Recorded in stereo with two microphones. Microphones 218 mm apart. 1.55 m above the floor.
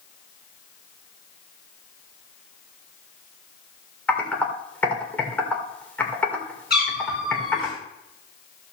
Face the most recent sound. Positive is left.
turn(degrees=45)  # may be behind; listen again after turning